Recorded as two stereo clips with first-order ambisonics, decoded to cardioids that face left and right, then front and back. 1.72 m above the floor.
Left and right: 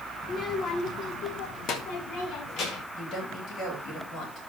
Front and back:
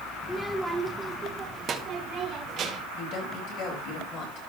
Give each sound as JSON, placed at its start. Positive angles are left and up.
{"t": 0.2, "sound": "a child speaking", "azimuth_deg": 55, "distance_m": 0.8}
{"t": 2.9, "sound": "a woman speaking", "azimuth_deg": 40, "distance_m": 4.0}